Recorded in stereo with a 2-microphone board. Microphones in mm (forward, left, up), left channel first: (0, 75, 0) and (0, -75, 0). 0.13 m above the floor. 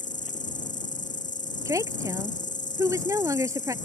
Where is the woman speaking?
20° right (ahead or behind).